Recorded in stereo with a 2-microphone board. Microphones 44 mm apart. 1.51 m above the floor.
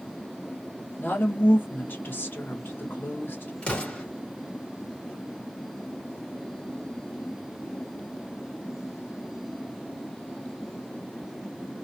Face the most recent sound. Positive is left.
turn(degrees=25)  # may be behind; listen again after turning